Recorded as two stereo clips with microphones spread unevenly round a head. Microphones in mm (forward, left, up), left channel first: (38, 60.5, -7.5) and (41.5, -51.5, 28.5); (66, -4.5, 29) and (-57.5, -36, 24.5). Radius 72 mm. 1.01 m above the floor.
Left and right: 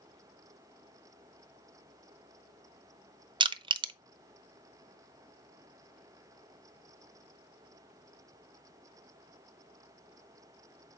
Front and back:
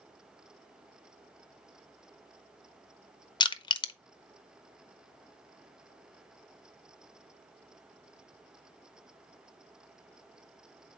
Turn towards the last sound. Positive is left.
turn(degrees=-35)